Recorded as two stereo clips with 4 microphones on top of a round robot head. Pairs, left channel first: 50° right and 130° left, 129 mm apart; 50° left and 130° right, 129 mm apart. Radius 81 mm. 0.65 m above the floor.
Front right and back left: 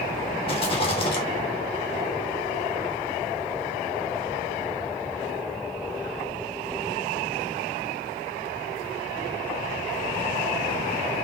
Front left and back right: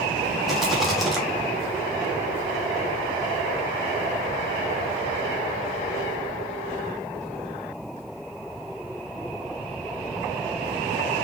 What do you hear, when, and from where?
0.5 s a rattle: 40° right, 1.1 m